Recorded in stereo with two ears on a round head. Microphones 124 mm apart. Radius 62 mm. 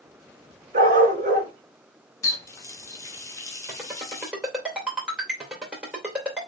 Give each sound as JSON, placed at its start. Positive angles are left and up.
{"t": 0.7, "sound": "a dog barking", "side_deg": -60, "distance_m": 2.5}
{"t": 2.2, "sound": "a running tap", "side_deg": 20, "distance_m": 1.1}
{"t": 3.7, "sound": "a ringtone", "side_deg": -5, "distance_m": 3.0}